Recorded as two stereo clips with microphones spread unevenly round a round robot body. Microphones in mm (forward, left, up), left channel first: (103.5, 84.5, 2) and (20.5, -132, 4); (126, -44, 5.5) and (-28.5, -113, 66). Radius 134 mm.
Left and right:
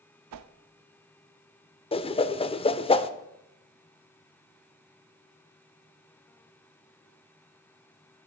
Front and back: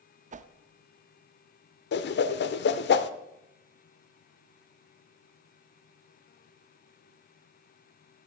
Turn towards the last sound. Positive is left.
turn(degrees=5)